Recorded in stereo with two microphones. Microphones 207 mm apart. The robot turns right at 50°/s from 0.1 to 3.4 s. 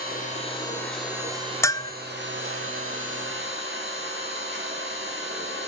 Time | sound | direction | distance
0.0 | an engine running | 135° left | 8.5 m
1.6 | a bell | 15° left (ahead or behind) | 0.7 m